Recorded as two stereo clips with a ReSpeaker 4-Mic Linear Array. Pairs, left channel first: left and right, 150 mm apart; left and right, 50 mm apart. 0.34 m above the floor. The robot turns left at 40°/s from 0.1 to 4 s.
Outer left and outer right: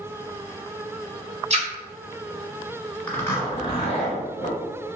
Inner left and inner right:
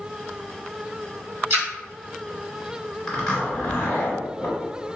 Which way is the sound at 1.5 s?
45° right (ahead or behind).